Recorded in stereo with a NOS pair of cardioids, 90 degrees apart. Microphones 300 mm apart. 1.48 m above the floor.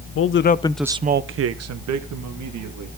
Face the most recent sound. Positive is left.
turn(degrees=-75)